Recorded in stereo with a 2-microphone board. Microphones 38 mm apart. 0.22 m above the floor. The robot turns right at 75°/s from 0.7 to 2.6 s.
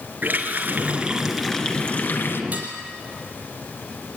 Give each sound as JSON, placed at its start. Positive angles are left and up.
{"t": 0.2, "sound": "a running tap", "azimuth_deg": -50, "distance_m": 2.5}
{"t": 2.5, "sound": "dishes clattering", "side_deg": -40, "distance_m": 4.5}